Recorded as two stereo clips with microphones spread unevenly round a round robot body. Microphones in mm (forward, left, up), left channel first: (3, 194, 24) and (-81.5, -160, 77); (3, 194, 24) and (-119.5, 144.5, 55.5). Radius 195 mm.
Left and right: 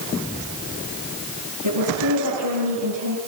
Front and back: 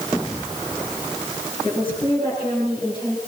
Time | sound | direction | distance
1.6 | a woman speaking | 60° right | 8 m